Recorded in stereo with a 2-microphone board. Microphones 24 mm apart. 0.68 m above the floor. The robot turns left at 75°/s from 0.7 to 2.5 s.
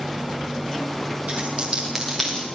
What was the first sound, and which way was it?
A dropped coin, 65° right (ahead or behind).